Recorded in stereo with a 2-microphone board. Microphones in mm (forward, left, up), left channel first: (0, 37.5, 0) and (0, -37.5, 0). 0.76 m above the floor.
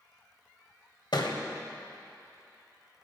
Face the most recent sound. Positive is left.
turn(degrees=80)